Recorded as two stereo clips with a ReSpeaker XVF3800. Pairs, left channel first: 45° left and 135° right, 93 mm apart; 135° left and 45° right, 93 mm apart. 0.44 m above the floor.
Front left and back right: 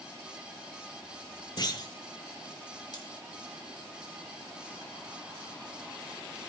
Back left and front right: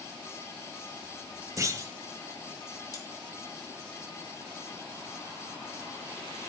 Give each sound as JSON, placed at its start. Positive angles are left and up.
{"t": 1.6, "sound": "a clunk", "azimuth_deg": 10, "distance_m": 1.5}
{"t": 2.9, "sound": "cutlery clinking", "azimuth_deg": 85, "distance_m": 3.0}